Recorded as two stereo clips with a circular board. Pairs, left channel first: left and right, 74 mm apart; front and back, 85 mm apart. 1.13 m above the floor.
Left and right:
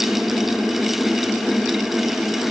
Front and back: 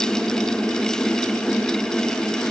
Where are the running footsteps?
I don't hear running footsteps.